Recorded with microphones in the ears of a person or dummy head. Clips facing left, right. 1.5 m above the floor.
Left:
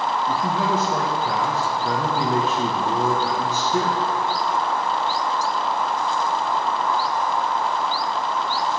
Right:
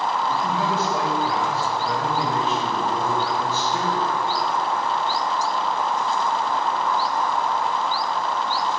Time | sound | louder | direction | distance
0.3 | a man speaking | left 1 dB | 50° left (ahead or behind) | 1.8 m